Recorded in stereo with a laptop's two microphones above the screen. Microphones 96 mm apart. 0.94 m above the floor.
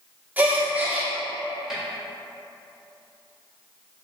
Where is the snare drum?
5° right (ahead or behind), 1.9 m.